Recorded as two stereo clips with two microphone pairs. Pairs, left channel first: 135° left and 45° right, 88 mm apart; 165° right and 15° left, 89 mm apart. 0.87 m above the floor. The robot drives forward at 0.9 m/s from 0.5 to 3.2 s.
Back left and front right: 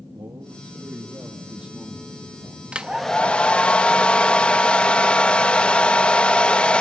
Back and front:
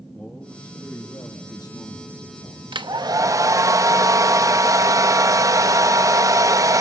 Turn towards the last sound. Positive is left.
turn(degrees=55)